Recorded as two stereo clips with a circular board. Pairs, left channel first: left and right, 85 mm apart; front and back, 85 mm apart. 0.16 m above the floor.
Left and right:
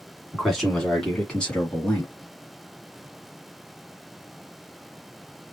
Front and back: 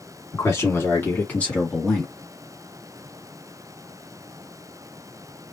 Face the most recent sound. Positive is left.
turn(degrees=90)